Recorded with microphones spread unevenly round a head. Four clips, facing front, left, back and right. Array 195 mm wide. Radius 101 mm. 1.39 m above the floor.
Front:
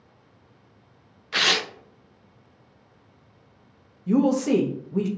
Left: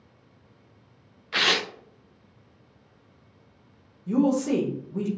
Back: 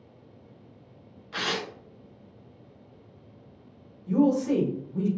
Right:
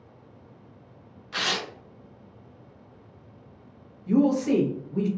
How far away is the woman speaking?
About 1.0 m.